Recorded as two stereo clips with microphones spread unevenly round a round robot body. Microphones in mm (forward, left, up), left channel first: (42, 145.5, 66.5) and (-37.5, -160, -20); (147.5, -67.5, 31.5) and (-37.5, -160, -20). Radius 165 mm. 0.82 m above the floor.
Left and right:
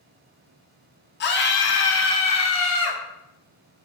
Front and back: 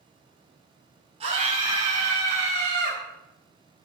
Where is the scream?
140° left, 1.6 m; by 3.0 s 125° left, 3.5 m.